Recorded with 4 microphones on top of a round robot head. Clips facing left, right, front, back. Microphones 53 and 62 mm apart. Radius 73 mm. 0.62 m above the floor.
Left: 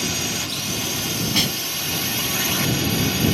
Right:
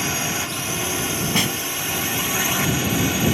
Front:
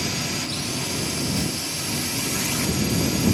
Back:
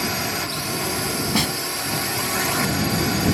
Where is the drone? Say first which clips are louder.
Right 2 dB, back 3 dB; 140° right; by 3.4 s 160° right.